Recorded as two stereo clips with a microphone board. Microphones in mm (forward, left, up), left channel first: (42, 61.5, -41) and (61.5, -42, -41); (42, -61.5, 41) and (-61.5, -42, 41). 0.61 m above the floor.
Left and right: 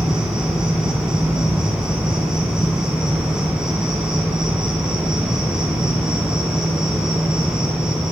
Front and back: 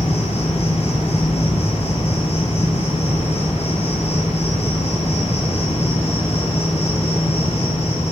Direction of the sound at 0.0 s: 5° left.